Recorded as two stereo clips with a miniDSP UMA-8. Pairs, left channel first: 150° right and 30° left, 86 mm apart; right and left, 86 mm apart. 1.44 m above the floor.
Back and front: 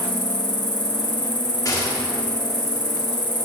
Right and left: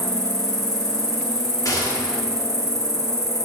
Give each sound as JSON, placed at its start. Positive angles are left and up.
{"t": 0.0, "sound": "an insect", "azimuth_deg": -135, "distance_m": 0.9}
{"t": 1.6, "sound": "a gunshot", "azimuth_deg": -115, "distance_m": 1.2}